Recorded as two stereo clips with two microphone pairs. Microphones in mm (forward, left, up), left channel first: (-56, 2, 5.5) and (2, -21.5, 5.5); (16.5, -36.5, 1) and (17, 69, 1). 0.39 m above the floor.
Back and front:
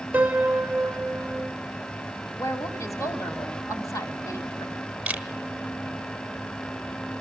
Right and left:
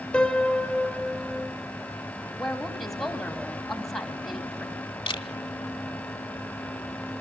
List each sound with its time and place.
0.1 s a piano: 20° right, 1.3 m
2.4 s a woman speaking: straight behind, 2.5 m
5.1 s a camera shutter: 90° right, 1.1 m